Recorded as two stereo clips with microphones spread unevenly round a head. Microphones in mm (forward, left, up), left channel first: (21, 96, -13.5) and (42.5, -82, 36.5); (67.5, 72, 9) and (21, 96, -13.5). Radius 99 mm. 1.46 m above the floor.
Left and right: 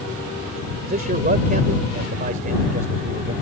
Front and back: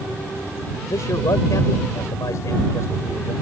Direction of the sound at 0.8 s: 40° right.